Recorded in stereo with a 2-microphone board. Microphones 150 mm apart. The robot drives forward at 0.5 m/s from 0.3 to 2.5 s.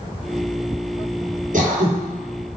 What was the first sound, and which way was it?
Throat clearing, 60° right (ahead or behind).